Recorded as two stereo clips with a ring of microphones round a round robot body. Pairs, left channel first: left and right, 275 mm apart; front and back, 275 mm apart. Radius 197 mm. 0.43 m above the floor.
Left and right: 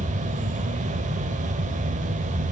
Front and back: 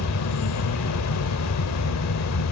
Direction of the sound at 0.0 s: 25° right.